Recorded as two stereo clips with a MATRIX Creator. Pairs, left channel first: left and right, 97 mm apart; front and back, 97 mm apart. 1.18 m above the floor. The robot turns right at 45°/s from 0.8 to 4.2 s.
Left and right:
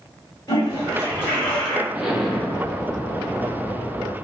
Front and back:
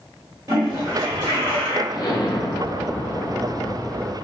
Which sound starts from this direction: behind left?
A toilet flushing, at 0.5 s.